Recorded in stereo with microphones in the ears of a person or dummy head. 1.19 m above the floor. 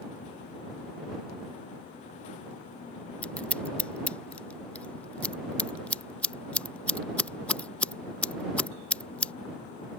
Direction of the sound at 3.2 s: 10° left (ahead or behind).